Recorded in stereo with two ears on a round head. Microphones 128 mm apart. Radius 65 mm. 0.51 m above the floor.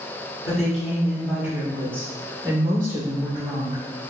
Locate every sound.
0.4 s a woman speaking: 5° left (ahead or behind), 1.7 m; by 3.8 s 40° right (ahead or behind), 1.4 m